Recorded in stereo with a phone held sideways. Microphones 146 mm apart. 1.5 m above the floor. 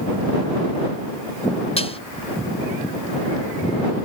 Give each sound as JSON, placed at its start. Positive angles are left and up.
{"t": 1.8, "sound": "dishes clattering", "side_deg": 45}